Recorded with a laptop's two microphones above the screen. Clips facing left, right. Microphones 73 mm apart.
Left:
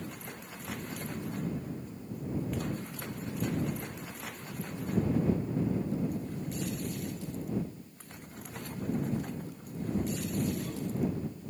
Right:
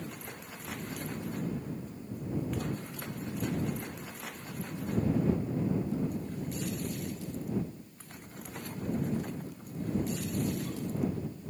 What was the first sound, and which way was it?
Only background noise.